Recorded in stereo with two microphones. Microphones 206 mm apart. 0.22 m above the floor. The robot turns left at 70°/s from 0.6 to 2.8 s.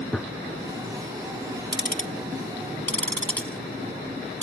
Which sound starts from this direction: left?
Ticking, at 1.7 s.